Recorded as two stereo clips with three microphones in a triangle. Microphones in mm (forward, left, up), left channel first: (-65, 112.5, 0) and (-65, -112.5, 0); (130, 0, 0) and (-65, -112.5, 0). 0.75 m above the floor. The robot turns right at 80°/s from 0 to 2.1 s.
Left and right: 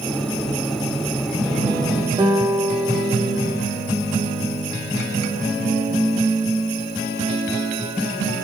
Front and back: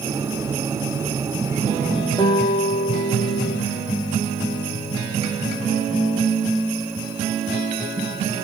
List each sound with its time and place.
2.2 s a guitar: 30° right, 0.6 m